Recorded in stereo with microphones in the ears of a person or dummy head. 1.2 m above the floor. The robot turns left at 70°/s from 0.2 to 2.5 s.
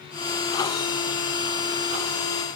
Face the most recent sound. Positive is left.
No sound to turn to.